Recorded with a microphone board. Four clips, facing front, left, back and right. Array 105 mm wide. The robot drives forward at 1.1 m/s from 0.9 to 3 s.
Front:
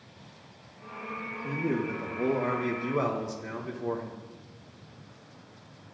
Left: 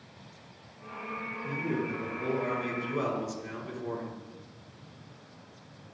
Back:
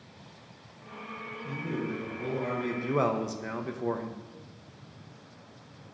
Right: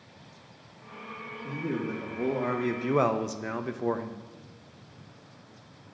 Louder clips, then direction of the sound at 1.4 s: Right 1 dB, front 4 dB; 20° right.